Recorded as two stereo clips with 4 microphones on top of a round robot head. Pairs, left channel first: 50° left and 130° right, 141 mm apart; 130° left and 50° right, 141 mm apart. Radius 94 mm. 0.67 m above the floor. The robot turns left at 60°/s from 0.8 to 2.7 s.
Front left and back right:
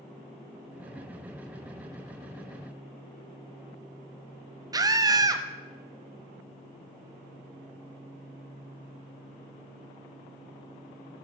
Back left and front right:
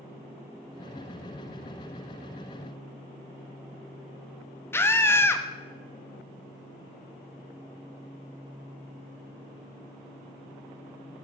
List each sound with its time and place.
4.7 s a scream: 170° right, 0.7 m